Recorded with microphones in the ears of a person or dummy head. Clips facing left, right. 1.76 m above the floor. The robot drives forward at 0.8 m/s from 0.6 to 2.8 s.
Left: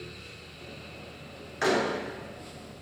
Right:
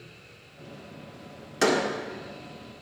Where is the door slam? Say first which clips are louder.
Right 2 dB; 55° right (ahead or behind), 1.7 m; by 1.8 s 50° right (ahead or behind), 1.8 m.